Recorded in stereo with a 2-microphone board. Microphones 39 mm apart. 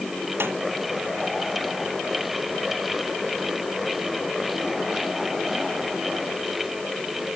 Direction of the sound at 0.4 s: 80° right.